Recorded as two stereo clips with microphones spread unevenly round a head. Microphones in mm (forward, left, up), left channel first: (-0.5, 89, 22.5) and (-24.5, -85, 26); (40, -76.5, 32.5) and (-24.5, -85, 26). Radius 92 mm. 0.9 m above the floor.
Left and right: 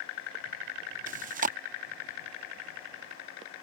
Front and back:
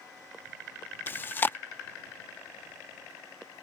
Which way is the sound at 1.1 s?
50° right.